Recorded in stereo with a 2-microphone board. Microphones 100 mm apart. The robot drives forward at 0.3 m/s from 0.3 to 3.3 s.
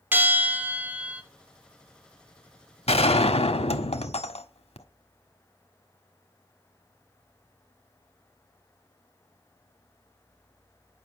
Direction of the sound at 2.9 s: 75° left (ahead or behind).